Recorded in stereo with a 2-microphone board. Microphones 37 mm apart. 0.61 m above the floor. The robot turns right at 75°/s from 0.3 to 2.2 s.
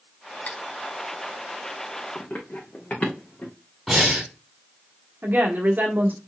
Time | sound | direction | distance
0.5 | cutlery clinking | 45° left (ahead or behind) | 0.8 m
2.1 | running footsteps | 40° left (ahead or behind) | 1.7 m
3.9 | breathing | centre (ahead or behind) | 3.5 m
5.2 | a woman speaking | 55° right (ahead or behind) | 1.4 m